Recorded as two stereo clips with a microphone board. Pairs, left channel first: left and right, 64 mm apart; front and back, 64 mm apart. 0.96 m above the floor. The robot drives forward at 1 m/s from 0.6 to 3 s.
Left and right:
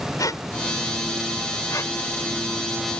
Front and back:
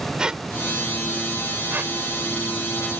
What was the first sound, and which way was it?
A squeak, 105° left.